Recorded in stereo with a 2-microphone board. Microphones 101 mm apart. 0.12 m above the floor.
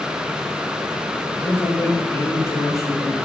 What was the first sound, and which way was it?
A man speaking, 20° left (ahead or behind).